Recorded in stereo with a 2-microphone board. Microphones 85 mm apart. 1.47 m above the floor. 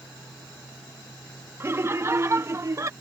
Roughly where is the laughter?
Right.